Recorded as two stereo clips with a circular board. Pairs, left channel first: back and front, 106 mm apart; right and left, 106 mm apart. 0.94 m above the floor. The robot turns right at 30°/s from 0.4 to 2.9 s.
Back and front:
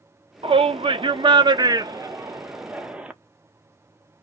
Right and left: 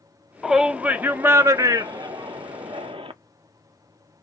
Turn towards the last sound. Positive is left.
turn(degrees=75)